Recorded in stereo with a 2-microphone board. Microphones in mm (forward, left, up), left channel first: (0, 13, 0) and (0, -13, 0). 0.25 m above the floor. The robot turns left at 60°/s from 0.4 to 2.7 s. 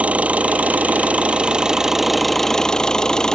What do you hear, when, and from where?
0.0 s an engine running: 65° right; by 3.3 s 155° left